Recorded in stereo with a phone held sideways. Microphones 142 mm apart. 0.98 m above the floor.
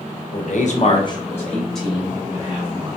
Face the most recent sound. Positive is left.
turn(degrees=-15)  # may be behind; listen again after turning